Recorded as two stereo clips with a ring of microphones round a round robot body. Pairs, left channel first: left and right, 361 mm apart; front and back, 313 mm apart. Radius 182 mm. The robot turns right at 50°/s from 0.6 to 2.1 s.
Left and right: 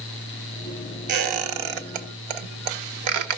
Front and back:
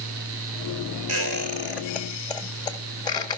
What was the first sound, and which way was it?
A squeak, 130° right.